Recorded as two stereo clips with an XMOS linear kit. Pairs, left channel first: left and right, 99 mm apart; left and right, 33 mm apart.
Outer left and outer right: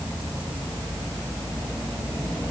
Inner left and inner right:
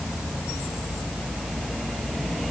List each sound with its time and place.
Only background noise.